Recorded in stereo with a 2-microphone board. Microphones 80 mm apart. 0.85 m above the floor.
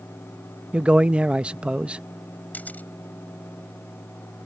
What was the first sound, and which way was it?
A man speaking, 15° right (ahead or behind).